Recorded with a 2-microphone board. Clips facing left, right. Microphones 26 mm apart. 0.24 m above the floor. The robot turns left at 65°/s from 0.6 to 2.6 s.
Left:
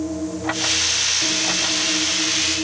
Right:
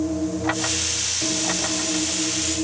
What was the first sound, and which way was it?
Only background noise.